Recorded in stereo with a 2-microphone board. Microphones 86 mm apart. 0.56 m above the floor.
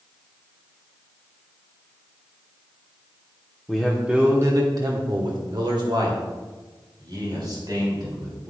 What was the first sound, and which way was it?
A man speaking, 5° left (ahead or behind).